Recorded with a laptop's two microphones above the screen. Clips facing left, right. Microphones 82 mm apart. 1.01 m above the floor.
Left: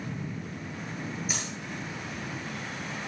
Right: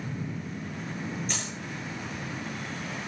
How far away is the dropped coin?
About 9 m.